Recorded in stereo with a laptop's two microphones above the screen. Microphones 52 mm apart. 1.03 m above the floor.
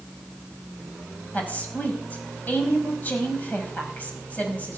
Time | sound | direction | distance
1.3 | a woman speaking | 30° left (ahead or behind) | 5.5 m